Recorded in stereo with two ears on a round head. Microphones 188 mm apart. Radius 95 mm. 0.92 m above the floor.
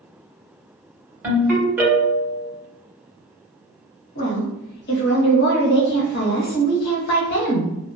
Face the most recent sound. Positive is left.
turn(degrees=50)  # may be behind; listen again after turning